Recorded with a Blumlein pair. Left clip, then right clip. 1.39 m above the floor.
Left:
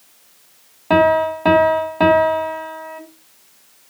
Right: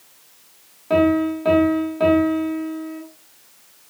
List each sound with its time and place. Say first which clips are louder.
0.9 s a piano: left 4 dB; 65° left, 1.8 m